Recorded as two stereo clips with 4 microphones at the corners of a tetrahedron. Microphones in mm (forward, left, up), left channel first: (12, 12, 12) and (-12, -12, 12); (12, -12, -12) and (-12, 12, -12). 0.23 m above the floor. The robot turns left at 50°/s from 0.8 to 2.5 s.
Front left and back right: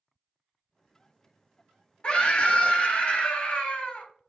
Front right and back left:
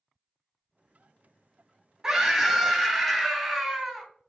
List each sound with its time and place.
2.0 s a scream: 75° left, 1.1 m; by 4.1 s 50° left, 1.1 m